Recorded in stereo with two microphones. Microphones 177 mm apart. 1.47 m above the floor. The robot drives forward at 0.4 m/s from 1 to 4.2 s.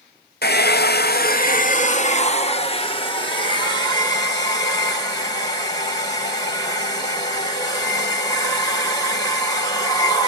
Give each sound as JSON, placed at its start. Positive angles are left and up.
{"t": 0.4, "sound": "a hair dryer", "side_deg": 65, "distance_m": 0.7}